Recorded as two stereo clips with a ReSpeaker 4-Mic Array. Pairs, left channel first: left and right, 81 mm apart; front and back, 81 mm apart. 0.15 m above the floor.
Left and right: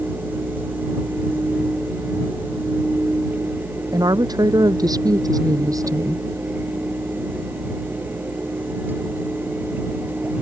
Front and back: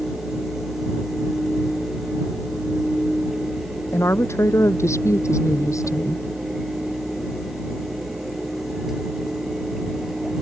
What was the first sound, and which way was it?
A woman speaking, 55° right.